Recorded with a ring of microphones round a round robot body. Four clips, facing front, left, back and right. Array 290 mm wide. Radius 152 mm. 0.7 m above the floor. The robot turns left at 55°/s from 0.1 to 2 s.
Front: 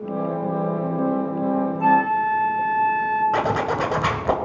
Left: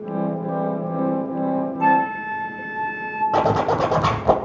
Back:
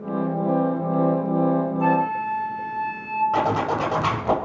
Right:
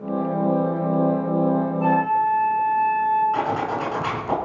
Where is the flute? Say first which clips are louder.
Left 2 dB, front 7 dB; 90° left, 4.5 m; by 3.2 s 80° left, 4.5 m.